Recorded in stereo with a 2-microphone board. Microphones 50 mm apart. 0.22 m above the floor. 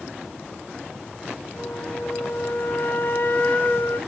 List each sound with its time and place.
1.6 s a flute: 40° left (ahead or behind), 1.7 m